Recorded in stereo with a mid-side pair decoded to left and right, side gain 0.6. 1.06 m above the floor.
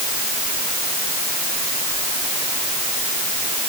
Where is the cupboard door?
I don't hear a cupboard door.